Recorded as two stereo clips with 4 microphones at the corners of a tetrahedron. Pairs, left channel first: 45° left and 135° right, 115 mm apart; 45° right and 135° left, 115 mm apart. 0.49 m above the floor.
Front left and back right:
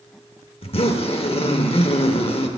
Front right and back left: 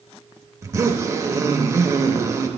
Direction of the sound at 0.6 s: 75° left.